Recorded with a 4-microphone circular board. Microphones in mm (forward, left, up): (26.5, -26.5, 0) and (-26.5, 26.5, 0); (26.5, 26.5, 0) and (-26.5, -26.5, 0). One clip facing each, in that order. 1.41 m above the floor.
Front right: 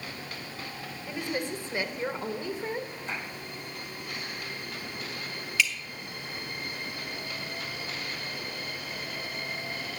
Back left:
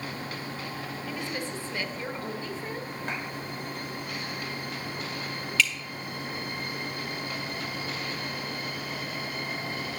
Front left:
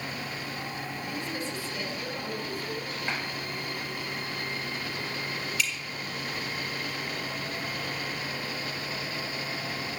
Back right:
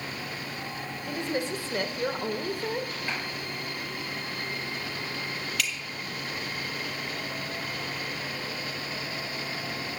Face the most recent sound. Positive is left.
turn(degrees=-120)